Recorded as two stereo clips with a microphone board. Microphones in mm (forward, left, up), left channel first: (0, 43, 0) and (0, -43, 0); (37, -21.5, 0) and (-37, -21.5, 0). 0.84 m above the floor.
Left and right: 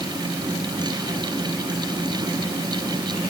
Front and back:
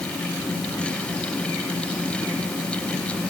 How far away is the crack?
No crack in this recording.